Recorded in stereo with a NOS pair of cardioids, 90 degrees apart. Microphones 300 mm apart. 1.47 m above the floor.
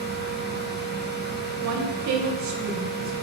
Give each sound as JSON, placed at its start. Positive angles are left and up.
{"t": 0.0, "sound": "a fan", "azimuth_deg": -35, "distance_m": 1.2}
{"t": 1.6, "sound": "a woman speaking", "azimuth_deg": -65, "distance_m": 1.3}